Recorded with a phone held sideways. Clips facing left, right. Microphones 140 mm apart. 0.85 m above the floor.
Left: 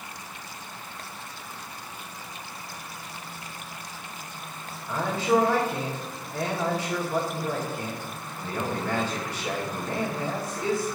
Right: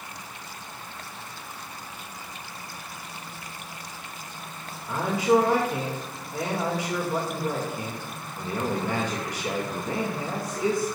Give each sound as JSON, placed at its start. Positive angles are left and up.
{"t": 4.9, "sound": "a man speaking", "side_deg": -20, "distance_m": 2.0}